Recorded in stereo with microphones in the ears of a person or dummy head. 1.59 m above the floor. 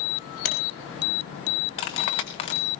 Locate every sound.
0.5 s tapping: 50° left (ahead or behind), 5.5 m
1.8 s cutlery clinking: 20° left (ahead or behind), 0.8 m